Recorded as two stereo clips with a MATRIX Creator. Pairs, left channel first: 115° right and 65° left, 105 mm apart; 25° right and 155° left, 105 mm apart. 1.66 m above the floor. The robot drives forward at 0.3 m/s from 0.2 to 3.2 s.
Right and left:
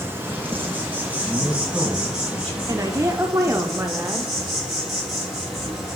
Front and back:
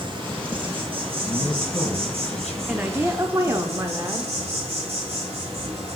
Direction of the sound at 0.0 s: 130° left.